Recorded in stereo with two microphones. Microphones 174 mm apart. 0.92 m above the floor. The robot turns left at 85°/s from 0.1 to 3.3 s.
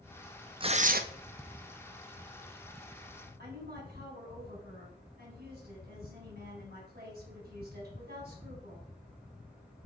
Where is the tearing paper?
30° right, 0.6 m; by 1.0 s 65° right, 0.6 m.